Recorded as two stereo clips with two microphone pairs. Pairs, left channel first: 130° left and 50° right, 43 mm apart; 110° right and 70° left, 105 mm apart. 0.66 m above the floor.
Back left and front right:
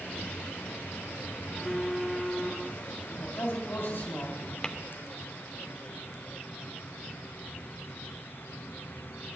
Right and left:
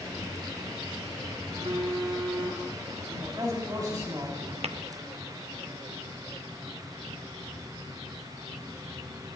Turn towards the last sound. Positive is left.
turn(degrees=55)